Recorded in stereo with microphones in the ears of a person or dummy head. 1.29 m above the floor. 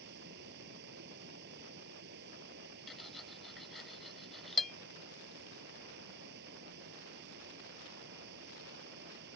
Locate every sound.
0.0 s running water: 60° right (ahead or behind)
2.9 s cutlery clinking: centre (ahead or behind)